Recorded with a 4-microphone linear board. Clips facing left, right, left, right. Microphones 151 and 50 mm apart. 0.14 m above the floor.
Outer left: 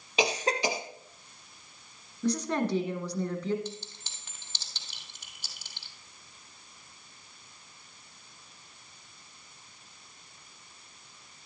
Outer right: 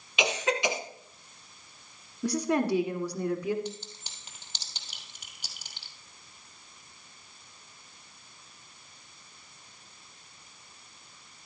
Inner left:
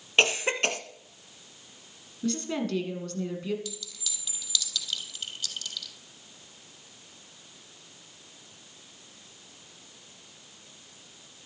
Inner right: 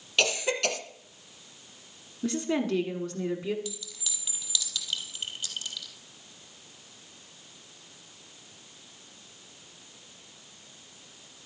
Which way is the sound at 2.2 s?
10° right (ahead or behind).